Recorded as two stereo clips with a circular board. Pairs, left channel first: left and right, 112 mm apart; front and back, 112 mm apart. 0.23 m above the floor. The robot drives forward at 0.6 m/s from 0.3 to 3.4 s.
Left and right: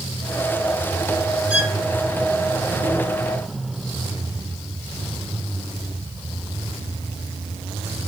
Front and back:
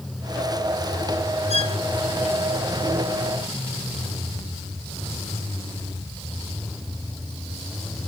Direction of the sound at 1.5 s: 10° right.